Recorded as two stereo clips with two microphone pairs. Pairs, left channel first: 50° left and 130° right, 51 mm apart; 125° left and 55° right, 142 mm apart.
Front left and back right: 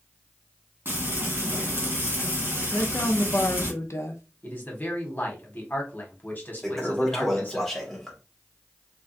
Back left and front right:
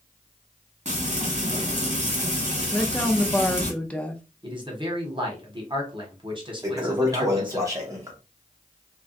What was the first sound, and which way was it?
Frying, 85° right.